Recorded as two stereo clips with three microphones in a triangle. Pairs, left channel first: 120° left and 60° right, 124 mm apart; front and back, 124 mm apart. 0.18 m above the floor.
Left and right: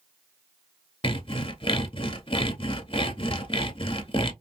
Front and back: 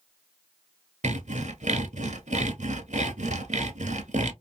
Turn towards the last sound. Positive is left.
turn(degrees=165)